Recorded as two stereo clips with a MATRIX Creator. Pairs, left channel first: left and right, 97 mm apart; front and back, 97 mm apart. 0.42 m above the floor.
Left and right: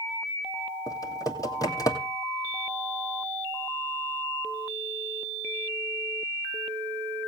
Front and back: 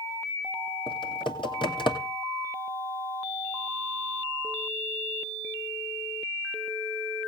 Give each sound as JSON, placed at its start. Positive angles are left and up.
{"t": 0.9, "sound": "typing on a keyboard", "azimuth_deg": 35, "distance_m": 2.5}